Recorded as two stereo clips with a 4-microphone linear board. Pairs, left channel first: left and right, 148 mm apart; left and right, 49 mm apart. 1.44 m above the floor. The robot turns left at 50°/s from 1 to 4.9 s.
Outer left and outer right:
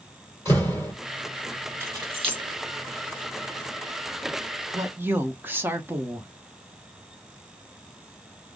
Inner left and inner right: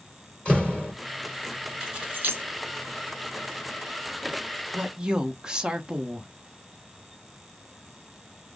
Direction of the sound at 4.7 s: 20° right (ahead or behind).